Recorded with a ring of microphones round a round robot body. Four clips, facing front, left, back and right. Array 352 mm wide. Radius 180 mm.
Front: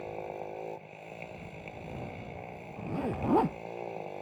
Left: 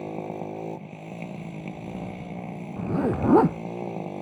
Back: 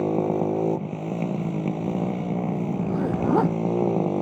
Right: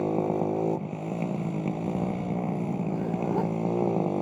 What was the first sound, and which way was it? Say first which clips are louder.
A motorcycle: right 7 dB, back 16 dB; 160° right.